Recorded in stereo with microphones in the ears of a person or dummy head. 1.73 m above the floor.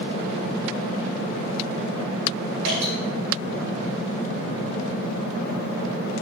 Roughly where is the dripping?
Right.